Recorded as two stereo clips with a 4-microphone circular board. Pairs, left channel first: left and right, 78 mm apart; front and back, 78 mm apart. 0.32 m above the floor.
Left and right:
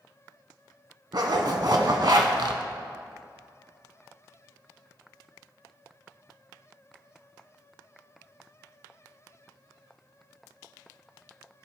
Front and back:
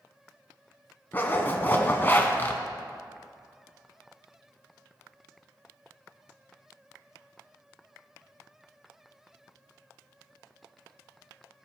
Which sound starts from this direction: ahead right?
A zipper, at 1.1 s.